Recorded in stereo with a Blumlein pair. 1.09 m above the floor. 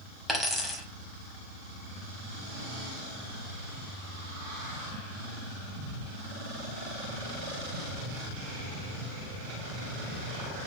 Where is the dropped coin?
5° left, 1.2 m.